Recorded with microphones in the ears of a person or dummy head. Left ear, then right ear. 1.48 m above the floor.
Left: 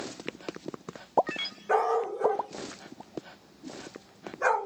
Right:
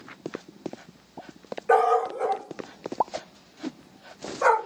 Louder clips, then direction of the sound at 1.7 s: Right 6 dB; 40° right (ahead or behind).